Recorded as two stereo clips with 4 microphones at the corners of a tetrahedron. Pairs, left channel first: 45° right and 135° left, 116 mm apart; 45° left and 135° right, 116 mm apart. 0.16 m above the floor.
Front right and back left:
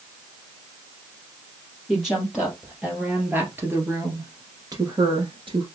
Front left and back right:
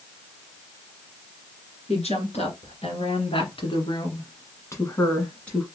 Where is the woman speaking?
45° left, 2.5 m; by 5.7 s 125° left, 1.5 m.